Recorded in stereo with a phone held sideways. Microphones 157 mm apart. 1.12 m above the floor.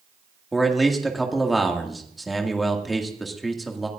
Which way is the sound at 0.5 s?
Centre (ahead or behind).